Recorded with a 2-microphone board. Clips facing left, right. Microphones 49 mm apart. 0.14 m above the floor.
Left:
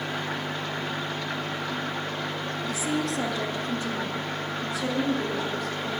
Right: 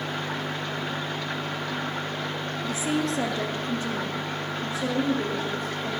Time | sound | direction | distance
2.6 | a woman speaking | 30° right (ahead or behind) | 2.5 m